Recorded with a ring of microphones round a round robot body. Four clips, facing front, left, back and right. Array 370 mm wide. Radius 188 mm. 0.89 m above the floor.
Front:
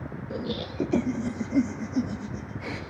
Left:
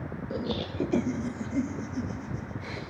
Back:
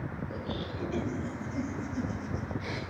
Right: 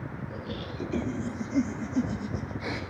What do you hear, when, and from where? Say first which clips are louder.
0.3 s laughter: left 9 dB, front 8 dB; 45° left, 1.4 m; by 2.8 s 60° right, 1.6 m